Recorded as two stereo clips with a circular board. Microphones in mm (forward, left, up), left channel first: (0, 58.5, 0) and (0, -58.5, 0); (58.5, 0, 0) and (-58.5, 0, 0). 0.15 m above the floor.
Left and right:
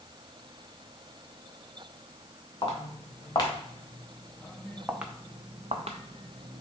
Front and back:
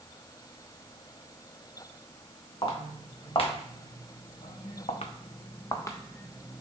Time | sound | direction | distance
2.6 | footsteps | 45° left | 2 m